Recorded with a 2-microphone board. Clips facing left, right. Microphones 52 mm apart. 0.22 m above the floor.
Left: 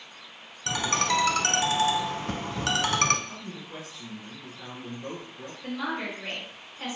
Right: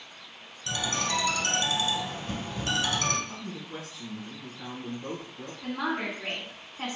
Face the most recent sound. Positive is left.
turn(degrees=-40)  # may be behind; listen again after turning